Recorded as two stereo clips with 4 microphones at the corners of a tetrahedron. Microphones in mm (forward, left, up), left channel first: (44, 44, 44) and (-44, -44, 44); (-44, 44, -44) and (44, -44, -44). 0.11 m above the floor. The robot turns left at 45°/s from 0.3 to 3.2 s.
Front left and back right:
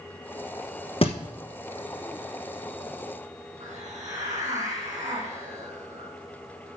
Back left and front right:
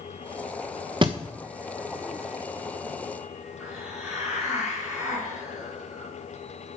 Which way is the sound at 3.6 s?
125° right.